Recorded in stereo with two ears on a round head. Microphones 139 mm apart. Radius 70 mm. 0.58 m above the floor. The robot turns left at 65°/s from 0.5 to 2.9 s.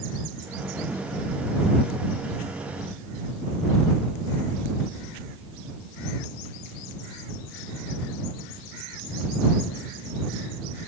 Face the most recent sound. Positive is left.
No sound to turn to.